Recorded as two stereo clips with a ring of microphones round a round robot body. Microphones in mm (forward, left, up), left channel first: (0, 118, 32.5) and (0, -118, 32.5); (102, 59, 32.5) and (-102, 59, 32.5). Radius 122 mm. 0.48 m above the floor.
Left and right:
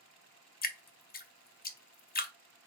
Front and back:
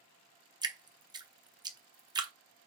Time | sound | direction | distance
0.6 | dripping | 120° left | 0.9 m